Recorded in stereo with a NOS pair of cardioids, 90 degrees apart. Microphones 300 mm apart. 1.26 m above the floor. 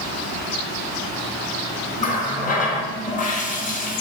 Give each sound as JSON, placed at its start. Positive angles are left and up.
{"t": 2.0, "sound": "a running tap", "azimuth_deg": 25, "distance_m": 0.8}